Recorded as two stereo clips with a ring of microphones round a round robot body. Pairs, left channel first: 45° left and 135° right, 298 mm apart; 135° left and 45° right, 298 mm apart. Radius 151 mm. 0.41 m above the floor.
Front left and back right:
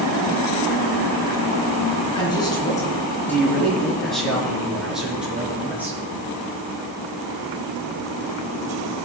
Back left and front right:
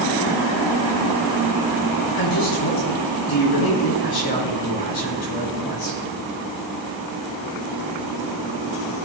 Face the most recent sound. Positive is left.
turn(degrees=140)